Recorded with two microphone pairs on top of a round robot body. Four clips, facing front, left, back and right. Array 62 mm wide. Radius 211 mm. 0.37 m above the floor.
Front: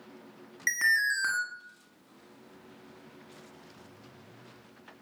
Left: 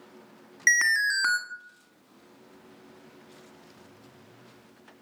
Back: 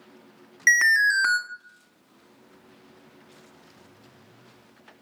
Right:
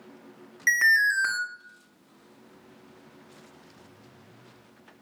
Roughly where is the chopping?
I don't hear chopping.